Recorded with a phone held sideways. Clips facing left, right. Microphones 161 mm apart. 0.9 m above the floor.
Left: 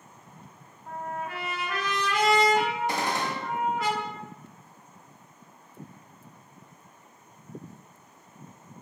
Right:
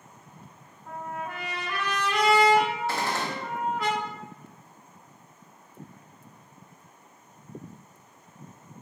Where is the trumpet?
5° left (ahead or behind), 1.5 m.